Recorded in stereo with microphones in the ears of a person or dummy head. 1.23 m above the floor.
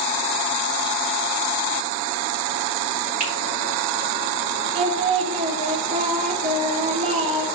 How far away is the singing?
About 1.0 m.